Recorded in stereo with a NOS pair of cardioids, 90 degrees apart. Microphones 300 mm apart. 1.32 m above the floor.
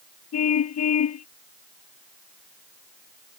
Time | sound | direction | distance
0.3 | a car horn | 60° left | ?